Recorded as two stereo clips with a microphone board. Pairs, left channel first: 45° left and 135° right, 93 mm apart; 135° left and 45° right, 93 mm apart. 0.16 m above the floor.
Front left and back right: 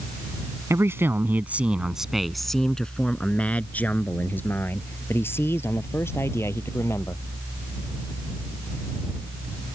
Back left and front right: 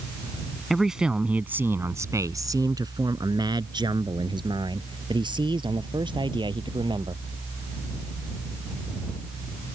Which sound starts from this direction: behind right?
A man speaking, at 0.7 s.